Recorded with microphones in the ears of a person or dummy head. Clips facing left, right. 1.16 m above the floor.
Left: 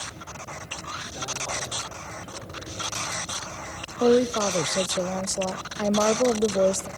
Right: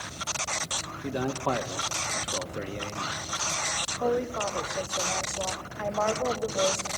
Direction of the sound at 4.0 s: 45° left (ahead or behind).